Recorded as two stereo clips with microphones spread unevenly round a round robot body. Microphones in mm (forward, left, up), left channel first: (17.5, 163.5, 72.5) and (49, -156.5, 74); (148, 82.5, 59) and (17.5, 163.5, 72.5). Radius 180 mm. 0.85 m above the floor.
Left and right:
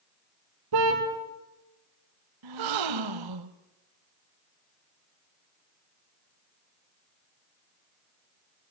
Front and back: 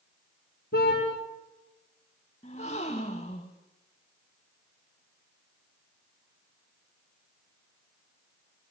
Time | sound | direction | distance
0.7 | a car horn | 75° right | 5 m
2.4 | a gasp | 105° right | 1.1 m